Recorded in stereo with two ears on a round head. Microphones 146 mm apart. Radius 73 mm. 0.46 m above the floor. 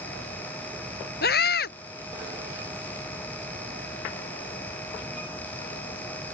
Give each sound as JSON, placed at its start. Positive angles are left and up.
{"t": 1.2, "sound": "a scream", "side_deg": 65}